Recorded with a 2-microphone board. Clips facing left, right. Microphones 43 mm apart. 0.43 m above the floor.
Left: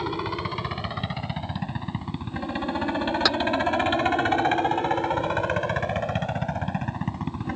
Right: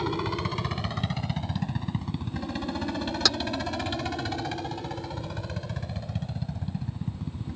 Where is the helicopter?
10° left (ahead or behind); by 7.6 s 65° left (ahead or behind).